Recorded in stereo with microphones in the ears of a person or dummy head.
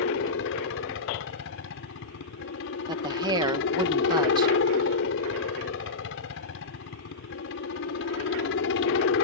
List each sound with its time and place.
0.0 s a helicopter: 70° left (ahead or behind)
2.9 s a woman speaking: 25° right (ahead or behind)